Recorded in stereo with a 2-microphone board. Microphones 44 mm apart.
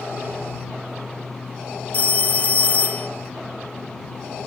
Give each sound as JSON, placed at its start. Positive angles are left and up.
{"t": 1.9, "sound": "a phone ringing", "side_deg": 35}